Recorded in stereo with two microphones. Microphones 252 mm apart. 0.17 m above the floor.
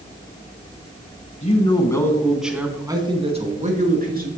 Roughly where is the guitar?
I don't hear a guitar.